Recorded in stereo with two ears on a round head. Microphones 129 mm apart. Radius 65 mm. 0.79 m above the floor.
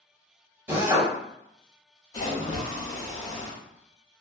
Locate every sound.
0.7 s a drill: 10° right (ahead or behind), 1.0 m
2.1 s a splash: 25° left (ahead or behind), 0.9 m